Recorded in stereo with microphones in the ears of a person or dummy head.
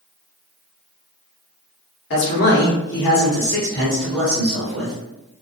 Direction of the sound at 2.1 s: 50° left (ahead or behind).